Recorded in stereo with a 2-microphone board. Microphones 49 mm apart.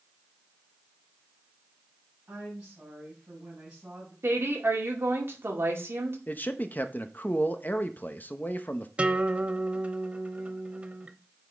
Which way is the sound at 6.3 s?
40° left (ahead or behind).